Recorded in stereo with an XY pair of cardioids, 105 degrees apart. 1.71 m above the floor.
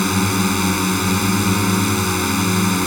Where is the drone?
10° left.